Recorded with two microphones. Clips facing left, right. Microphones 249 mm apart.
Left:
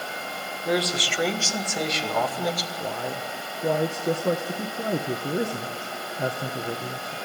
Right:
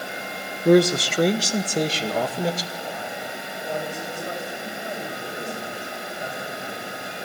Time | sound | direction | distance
0.7 | a man speaking | 55° right (ahead or behind) | 1.2 m
2.8 | a man speaking | 90° left | 1.6 m